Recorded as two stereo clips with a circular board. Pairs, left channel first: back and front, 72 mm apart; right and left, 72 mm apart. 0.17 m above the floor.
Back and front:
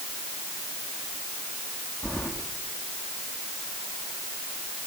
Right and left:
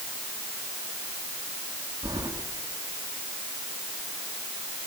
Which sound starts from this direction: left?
Keys jangling, at 2.0 s.